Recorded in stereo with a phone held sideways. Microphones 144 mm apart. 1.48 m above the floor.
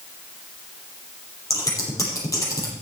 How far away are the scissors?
About 7.5 m.